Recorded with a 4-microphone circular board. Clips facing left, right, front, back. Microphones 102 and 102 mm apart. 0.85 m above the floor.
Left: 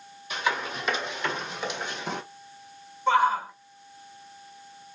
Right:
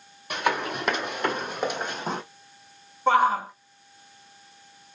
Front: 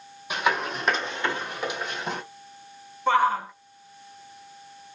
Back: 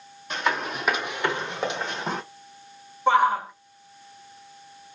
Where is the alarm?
I don't hear an alarm.